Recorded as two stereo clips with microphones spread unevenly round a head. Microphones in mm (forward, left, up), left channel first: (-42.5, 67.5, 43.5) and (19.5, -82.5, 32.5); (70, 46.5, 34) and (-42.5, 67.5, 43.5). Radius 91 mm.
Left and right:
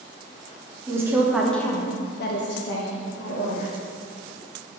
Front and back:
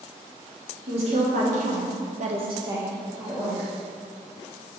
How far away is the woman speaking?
About 1.0 m.